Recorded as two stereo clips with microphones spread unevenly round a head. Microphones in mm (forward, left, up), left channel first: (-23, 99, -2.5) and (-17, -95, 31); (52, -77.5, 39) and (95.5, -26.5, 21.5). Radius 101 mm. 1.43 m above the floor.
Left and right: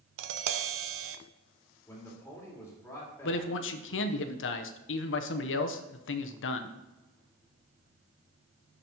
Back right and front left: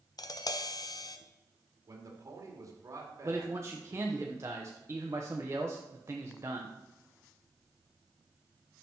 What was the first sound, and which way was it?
Tapping, 105° right.